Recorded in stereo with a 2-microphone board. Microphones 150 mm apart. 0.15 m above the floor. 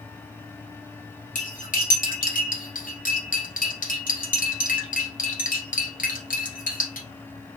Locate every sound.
1.4 s cutlery clinking: 65° left (ahead or behind), 1.5 m